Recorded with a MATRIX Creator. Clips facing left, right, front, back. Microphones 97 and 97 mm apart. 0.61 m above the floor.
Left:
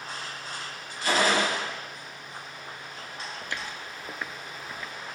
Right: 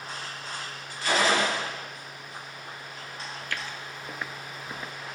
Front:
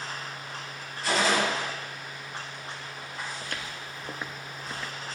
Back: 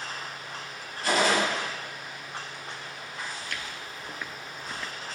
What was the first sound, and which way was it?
A gunshot, 140° left.